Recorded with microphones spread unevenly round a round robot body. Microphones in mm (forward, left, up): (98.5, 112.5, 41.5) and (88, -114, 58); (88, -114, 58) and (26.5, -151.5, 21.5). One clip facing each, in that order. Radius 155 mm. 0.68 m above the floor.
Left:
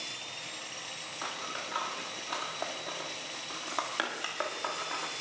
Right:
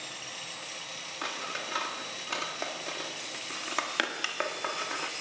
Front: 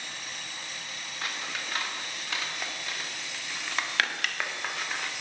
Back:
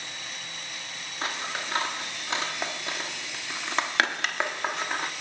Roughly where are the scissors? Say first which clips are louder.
Right 3 dB, back 4 dB; behind right.